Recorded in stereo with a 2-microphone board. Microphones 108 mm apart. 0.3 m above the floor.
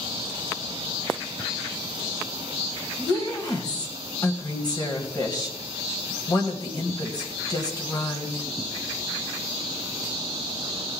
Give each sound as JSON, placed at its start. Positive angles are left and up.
{"t": 3.0, "sound": "a woman speaking", "side_deg": 40, "distance_m": 1.8}